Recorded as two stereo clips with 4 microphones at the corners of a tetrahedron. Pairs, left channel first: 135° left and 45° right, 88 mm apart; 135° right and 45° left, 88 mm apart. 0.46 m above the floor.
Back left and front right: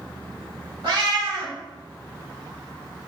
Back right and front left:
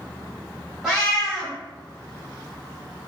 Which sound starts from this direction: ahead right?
A cat meowing, at 0.8 s.